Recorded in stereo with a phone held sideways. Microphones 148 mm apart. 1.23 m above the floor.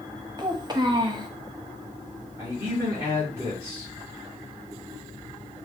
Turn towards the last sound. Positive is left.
turn(degrees=-15)  # may be behind; listen again after turning